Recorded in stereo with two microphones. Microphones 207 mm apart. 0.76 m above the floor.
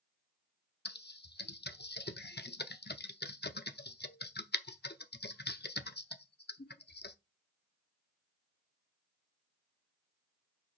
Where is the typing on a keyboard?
55° left (ahead or behind), 0.6 m.